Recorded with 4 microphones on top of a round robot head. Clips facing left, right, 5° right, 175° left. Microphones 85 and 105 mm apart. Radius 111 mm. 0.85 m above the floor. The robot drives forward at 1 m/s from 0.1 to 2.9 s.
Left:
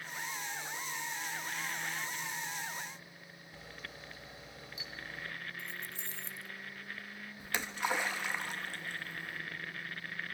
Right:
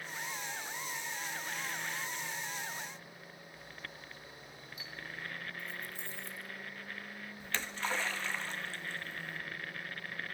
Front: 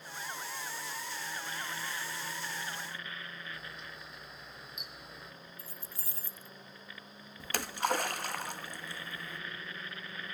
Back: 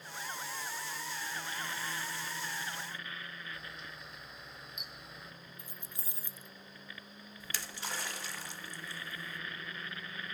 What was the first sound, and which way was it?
A camera shutter, 85° left.